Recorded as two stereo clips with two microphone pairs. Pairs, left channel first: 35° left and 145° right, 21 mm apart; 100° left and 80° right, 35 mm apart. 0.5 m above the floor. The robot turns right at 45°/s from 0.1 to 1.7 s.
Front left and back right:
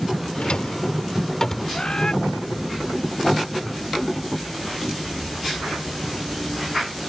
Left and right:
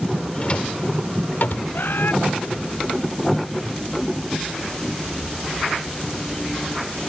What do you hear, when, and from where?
0.3 s a drawer: 45° left; by 1.8 s 105° left
1.7 s a bird: 85° left